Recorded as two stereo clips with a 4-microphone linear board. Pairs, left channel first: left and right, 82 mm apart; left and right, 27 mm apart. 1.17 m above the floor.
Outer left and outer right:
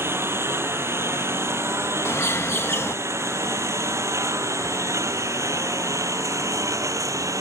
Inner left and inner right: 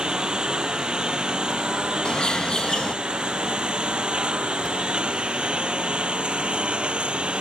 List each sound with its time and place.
0.0 s a lawn mower: 30° right (ahead or behind); by 7.4 s 40° right (ahead or behind)
2.0 s a bird: 30° left (ahead or behind)